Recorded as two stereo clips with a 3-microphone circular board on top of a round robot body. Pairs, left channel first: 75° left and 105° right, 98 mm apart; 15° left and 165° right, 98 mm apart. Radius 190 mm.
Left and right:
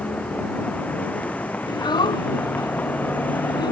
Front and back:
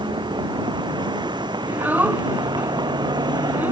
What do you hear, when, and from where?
0.0 s a vehicle: 155° left; by 3.7 s 150° left
1.7 s a child speaking: 120° left